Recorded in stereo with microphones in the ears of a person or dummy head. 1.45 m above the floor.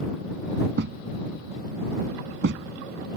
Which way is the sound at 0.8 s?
70° right (ahead or behind).